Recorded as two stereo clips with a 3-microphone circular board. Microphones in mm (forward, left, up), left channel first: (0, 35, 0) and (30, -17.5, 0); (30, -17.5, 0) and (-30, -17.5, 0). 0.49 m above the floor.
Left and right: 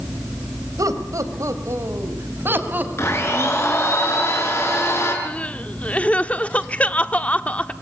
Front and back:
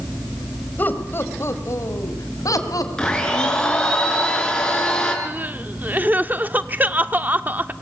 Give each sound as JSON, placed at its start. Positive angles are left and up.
{"t": 0.8, "sound": "laughter", "azimuth_deg": -55, "distance_m": 2.5}
{"t": 3.0, "sound": "a blender", "azimuth_deg": 80, "distance_m": 4.5}
{"t": 5.2, "sound": "crying", "azimuth_deg": 160, "distance_m": 0.7}